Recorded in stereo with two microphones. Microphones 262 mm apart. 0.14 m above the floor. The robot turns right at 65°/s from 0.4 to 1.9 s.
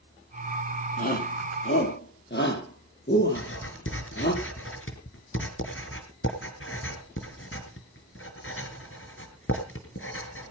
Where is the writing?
55° left (ahead or behind), 2.5 m.